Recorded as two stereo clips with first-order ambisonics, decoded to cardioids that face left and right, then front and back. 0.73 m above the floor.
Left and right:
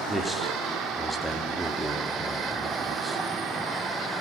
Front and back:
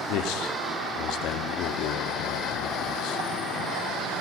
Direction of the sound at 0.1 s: 5° left.